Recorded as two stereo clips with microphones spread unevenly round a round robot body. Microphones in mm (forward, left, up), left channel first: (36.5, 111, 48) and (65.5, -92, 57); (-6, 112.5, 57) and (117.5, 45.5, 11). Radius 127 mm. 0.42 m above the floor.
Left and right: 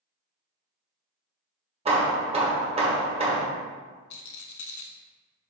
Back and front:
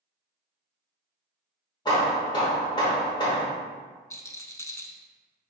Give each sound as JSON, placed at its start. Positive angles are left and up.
{"t": 1.9, "sound": "hammering", "azimuth_deg": -135, "distance_m": 1.0}
{"t": 4.1, "sound": "a rattle", "azimuth_deg": 90, "distance_m": 0.7}